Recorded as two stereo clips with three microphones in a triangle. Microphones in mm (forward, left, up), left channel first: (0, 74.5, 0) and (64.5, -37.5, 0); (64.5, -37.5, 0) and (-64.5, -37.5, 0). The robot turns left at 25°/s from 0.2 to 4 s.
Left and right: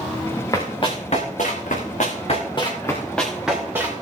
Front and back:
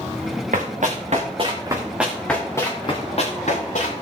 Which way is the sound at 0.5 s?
Straight behind.